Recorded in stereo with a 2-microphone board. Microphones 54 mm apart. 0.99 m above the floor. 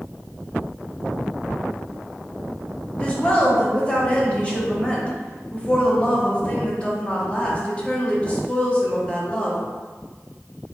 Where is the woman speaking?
20° left (ahead or behind), 0.8 m.